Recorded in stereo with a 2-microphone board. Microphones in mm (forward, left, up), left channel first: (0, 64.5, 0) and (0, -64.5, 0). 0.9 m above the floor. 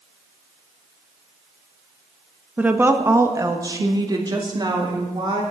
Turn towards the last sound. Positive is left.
turn(degrees=-35)  # may be behind; listen again after turning